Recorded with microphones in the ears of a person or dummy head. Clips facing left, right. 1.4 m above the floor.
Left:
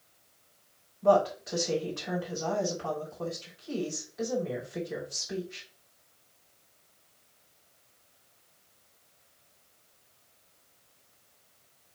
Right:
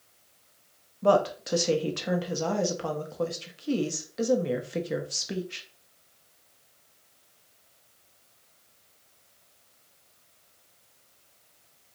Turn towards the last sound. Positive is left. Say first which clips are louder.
# right 1 dB
turn(degrees=-75)  # may be behind; listen again after turning